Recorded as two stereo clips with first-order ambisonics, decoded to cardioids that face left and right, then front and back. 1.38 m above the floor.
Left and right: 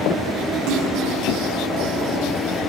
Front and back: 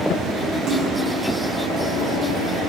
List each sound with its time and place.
0.7 s a splash: 120° right, 1.3 m